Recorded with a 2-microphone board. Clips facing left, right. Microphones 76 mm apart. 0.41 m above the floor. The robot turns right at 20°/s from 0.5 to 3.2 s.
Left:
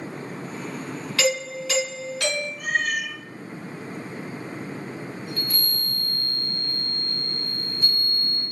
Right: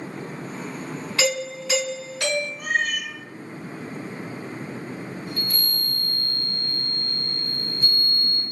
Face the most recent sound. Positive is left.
turn(degrees=-40)  # may be behind; listen again after turning